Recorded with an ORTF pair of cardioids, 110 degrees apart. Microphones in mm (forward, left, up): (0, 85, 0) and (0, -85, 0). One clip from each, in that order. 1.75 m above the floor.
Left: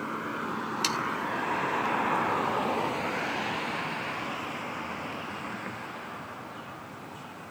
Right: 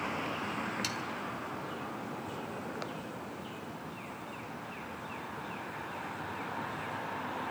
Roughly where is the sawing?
Ahead left.